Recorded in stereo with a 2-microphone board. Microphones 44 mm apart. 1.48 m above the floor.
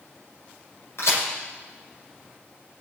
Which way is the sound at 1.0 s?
75° left (ahead or behind).